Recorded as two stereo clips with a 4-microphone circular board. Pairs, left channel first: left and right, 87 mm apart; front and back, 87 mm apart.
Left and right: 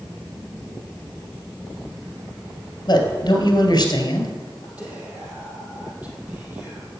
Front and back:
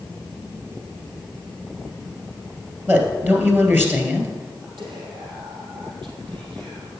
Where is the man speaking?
120° left, 2 m.